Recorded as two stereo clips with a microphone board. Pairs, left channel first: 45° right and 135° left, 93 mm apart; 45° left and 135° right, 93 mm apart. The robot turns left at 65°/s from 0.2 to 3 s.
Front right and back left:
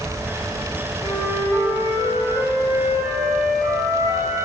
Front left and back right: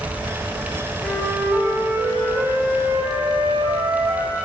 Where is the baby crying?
I don't hear a baby crying.